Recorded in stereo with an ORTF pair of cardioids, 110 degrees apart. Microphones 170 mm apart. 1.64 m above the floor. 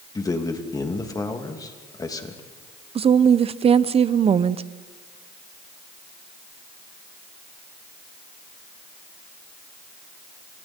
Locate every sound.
0.1 s a man speaking: 20° left, 3 m
3.0 s a woman speaking: 35° right, 0.9 m